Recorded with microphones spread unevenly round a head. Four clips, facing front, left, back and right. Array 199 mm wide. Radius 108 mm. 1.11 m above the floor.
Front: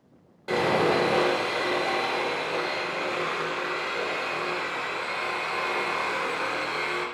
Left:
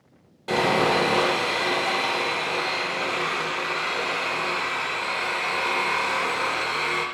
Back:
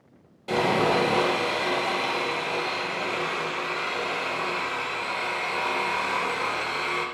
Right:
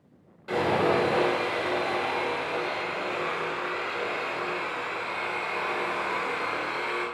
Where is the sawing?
40° left, 3 m.